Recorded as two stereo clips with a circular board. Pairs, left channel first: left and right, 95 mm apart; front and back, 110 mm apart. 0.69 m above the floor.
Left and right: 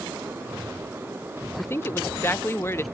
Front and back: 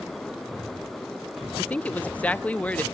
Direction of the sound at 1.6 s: 65° left.